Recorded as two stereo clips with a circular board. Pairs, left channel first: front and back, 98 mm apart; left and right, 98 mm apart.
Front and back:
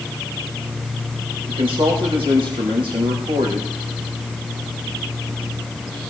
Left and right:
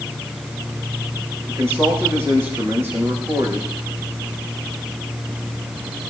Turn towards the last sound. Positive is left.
turn(degrees=-155)